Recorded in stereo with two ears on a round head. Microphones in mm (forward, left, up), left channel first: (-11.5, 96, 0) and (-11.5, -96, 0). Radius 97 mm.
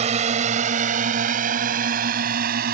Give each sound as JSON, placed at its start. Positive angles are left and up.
{"t": 0.0, "sound": "a drone", "side_deg": -30}